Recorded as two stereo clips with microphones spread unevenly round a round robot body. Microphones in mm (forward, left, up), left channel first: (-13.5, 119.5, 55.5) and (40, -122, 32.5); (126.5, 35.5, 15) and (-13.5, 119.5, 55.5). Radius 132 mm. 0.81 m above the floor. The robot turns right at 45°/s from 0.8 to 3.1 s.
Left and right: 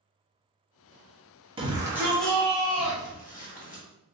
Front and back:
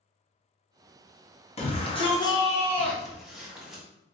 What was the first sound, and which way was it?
A shout, 20° right.